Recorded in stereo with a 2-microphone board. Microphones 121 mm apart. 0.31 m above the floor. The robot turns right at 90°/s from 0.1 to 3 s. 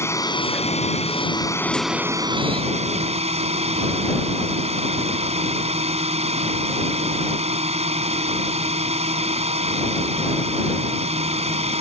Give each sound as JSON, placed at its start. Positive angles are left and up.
{"t": 0.0, "sound": "a drone", "azimuth_deg": 25}